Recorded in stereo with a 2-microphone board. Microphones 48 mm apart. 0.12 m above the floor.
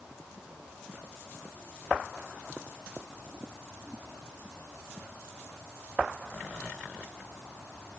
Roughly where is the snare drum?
I don't hear a snare drum.